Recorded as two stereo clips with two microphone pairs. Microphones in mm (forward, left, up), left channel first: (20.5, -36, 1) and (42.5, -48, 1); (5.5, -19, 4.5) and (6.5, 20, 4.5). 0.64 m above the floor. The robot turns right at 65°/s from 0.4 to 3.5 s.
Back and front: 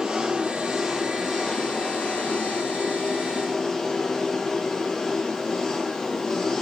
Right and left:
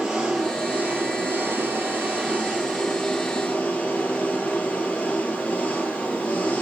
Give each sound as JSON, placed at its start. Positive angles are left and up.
{"t": 0.0, "sound": "an engine running", "azimuth_deg": 15, "distance_m": 8.0}